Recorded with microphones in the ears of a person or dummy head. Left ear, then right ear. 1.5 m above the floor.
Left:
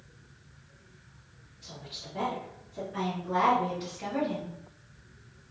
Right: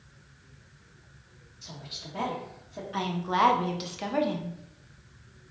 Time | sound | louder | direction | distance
1.6 | a woman speaking | right 2 dB | 75° right (ahead or behind) | 1.6 m
2.9 | a woman speaking | right 3 dB | 60° right (ahead or behind) | 0.7 m